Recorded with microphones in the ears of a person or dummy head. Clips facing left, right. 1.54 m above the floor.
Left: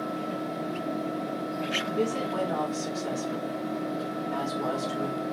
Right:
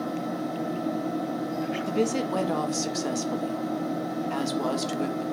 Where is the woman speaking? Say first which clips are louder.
Right 3 dB; 85° right, 0.9 m.